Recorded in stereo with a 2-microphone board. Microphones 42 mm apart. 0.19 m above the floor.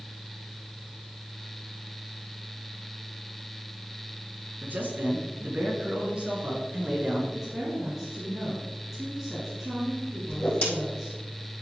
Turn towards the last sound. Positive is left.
turn(degrees=45)  # may be behind; listen again after turning